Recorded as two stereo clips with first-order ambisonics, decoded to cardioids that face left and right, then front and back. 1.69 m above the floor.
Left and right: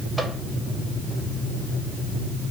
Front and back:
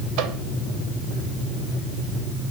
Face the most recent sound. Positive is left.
turn(degrees=-170)